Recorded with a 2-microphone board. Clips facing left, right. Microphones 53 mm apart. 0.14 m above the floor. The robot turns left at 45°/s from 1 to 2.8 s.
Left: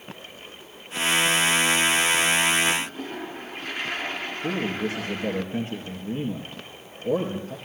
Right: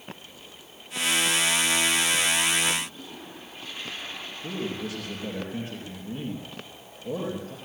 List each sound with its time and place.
2.8 s a toilet flushing: 55° left (ahead or behind), 1.8 m
4.4 s a man speaking: 30° left (ahead or behind), 3.5 m